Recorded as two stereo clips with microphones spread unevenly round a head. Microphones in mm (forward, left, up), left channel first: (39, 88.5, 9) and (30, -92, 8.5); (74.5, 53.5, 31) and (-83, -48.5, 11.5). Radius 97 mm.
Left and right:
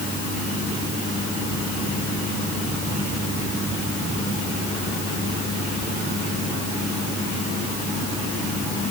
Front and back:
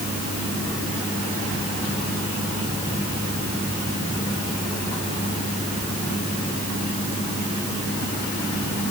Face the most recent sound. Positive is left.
No sound to turn to.